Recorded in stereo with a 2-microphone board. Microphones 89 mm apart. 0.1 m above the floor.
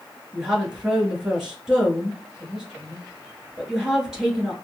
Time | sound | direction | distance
0.3 | a woman speaking | 10° right (ahead or behind) | 1.2 m